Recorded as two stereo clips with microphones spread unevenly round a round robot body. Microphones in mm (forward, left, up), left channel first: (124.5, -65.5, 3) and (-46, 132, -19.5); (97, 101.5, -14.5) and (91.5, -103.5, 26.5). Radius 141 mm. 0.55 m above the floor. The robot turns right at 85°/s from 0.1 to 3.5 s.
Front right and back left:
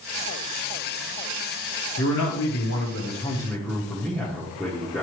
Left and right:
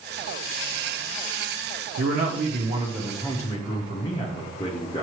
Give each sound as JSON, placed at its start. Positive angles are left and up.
{"t": 2.0, "sound": "a man speaking", "azimuth_deg": -90, "distance_m": 0.9}